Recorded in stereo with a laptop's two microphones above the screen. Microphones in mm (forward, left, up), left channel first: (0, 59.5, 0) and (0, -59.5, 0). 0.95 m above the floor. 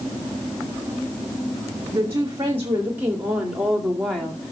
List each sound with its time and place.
1.9 s a woman speaking: 30° right (ahead or behind), 2.5 m; by 4.5 s 10° left (ahead or behind), 2 m